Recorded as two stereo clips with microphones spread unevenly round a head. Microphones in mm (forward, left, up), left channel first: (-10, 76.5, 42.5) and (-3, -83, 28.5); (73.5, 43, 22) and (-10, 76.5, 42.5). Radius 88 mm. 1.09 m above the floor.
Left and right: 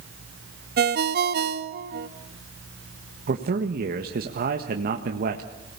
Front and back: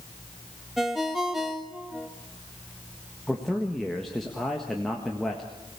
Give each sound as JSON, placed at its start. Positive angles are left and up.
{"t": 0.8, "sound": "a ringtone", "azimuth_deg": -115, "distance_m": 1.2}
{"t": 3.3, "sound": "a man speaking", "azimuth_deg": -105, "distance_m": 1.5}